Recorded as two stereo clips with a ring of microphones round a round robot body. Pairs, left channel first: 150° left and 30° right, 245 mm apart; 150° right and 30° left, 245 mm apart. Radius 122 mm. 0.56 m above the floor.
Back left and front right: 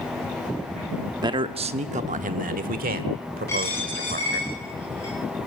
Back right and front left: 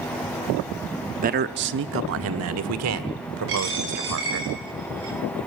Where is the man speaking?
30° left, 0.7 m; by 4.5 s 20° left, 2 m.